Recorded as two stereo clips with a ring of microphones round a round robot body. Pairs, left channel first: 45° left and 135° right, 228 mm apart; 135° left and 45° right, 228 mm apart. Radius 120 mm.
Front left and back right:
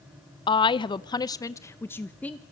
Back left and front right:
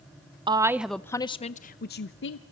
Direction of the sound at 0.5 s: Straight ahead.